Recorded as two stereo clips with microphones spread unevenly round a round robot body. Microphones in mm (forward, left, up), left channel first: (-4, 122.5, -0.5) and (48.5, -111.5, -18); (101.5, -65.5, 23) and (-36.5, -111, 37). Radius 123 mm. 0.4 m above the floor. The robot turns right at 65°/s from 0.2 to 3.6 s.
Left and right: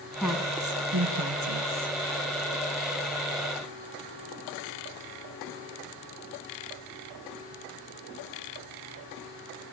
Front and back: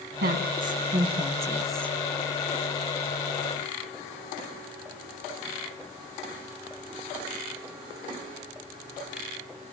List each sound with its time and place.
0.2 s a woman speaking: 170° right, 4.5 m; by 1.9 s 55° right, 4.5 m